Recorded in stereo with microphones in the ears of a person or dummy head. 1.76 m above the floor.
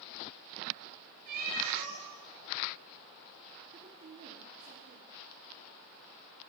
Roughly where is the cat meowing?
Right.